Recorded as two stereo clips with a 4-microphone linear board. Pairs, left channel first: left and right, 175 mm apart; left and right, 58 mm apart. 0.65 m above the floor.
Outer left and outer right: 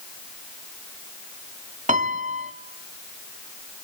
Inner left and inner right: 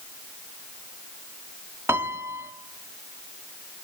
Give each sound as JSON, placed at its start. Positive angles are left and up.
{"t": 1.9, "sound": "a piano", "side_deg": -45, "distance_m": 1.6}